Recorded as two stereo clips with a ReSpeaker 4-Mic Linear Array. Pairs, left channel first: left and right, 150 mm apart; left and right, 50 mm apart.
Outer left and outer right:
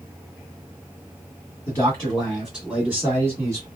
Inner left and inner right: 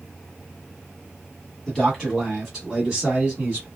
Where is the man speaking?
10° left (ahead or behind), 1.8 m; by 3.7 s 25° right (ahead or behind), 1.7 m.